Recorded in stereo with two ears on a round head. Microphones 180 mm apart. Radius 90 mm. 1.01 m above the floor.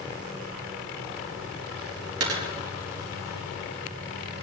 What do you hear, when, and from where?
2.2 s a dropped coin: 80° right, 4.5 m